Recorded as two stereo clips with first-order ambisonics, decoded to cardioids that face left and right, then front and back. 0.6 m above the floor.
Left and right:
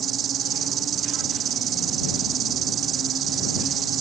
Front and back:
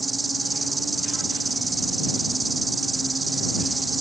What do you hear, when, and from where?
0.0 s an insect: 105° right